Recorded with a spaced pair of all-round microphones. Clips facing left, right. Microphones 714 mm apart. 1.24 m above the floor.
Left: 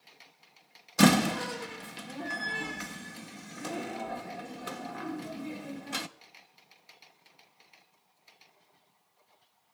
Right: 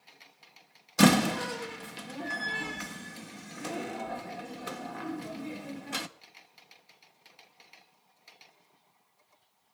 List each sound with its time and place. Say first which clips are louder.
1.0 s a door slam: even; centre (ahead or behind), 0.9 m